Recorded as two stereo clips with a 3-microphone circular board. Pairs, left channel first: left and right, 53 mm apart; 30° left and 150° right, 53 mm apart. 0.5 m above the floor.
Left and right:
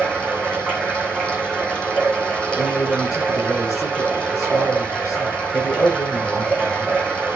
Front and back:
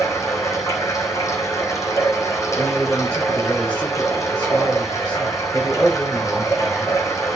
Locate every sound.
0.0 s running water: 25° left, 3 m
2.6 s a man speaking: 100° left, 6 m